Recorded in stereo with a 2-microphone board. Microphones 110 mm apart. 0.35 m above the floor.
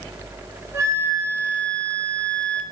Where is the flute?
30° right (ahead or behind), 3.5 m.